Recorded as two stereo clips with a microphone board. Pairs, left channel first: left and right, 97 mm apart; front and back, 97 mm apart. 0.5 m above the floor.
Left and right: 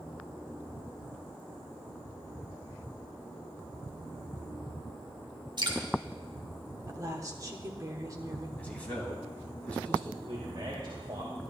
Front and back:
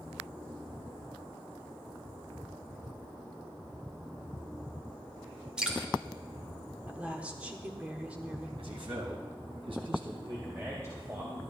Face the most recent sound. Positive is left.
turn(degrees=-120)